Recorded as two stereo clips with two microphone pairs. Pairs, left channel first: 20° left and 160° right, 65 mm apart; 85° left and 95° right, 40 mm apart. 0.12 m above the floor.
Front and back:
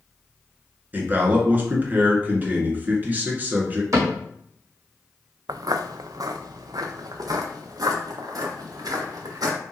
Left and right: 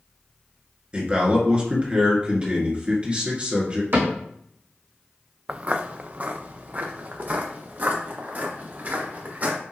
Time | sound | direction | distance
0.9 | a man speaking | 130° right | 1.9 m
3.9 | a cupboard door | 120° right | 2.5 m
5.5 | footsteps | 150° right | 0.5 m